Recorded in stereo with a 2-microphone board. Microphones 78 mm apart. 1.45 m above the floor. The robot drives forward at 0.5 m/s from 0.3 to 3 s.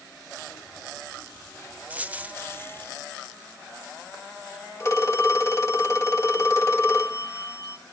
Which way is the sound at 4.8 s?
35° left (ahead or behind).